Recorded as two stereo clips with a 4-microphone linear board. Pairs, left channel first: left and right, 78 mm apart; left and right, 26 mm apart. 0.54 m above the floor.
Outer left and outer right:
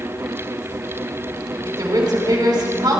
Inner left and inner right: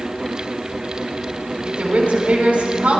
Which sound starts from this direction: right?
A woman speaking, at 1.6 s.